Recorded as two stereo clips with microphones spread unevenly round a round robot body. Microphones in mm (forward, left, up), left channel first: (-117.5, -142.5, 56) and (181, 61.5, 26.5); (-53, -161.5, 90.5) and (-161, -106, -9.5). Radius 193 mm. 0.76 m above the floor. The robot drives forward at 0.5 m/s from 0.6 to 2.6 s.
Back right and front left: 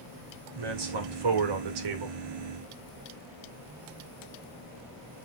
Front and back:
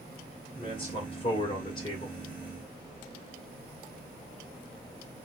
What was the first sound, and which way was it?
A man speaking, 45° left.